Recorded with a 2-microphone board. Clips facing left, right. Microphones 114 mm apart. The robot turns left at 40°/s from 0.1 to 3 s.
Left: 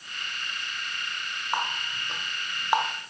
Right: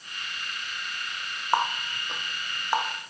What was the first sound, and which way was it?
A running tap, 30° right (ahead or behind).